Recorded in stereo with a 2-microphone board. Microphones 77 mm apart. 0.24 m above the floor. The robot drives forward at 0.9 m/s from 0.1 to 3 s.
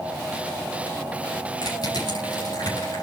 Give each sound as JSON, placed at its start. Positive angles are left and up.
{"t": 1.6, "sound": "crushing", "side_deg": 65, "distance_m": 8.5}